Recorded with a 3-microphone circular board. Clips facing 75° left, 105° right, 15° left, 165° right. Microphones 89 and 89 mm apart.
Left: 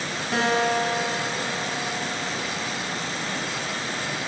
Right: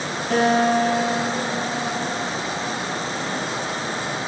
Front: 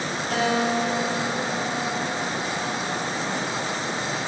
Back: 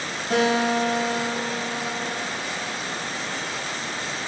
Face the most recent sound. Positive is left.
turn(degrees=-110)